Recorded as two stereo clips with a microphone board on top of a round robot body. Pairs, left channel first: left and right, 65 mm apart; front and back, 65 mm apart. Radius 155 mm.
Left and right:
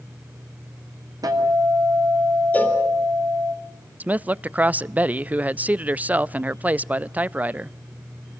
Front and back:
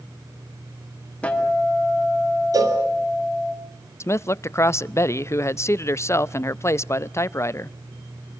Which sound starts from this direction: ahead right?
A man speaking, at 4.0 s.